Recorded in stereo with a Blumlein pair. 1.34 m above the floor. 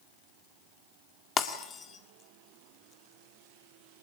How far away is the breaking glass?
About 2.0 m.